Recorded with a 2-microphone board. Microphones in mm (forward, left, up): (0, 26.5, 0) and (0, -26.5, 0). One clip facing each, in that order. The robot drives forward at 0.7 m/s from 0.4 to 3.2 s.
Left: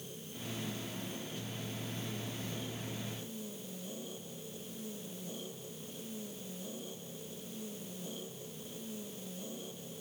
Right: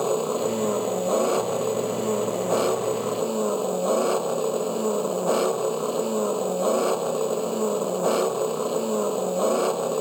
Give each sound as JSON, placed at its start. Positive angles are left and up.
{"t": 0.0, "sound": "an engine running", "side_deg": -90}